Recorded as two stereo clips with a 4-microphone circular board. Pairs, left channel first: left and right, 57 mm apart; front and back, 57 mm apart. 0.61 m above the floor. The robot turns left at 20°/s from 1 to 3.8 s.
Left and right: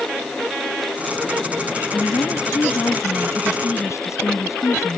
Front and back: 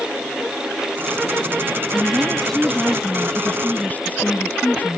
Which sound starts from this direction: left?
A woman speaking, at 1.9 s.